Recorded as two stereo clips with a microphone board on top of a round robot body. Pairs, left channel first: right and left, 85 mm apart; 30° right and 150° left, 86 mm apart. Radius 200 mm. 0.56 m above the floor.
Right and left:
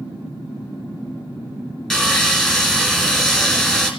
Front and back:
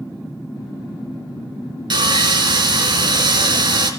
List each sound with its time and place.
1.9 s sawing: 175° right, 3 m